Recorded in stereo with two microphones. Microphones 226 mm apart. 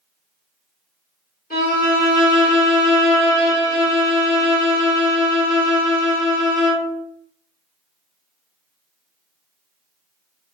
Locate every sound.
1.5 s a violin: 40° left (ahead or behind), 2.5 m